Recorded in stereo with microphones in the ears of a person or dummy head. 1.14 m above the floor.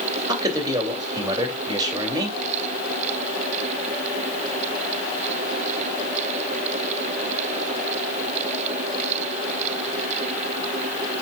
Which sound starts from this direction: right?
A man speaking, at 0.3 s.